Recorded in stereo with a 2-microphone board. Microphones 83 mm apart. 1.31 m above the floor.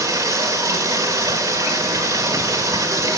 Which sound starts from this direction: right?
Running water, at 0.0 s.